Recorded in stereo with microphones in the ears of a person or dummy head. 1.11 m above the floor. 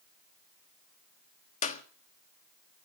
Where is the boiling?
No boiling in this recording.